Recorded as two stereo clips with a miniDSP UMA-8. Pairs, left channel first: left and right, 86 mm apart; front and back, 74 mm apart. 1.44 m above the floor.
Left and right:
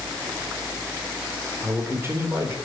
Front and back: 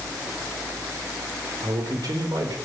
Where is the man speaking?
150° right, 4 m.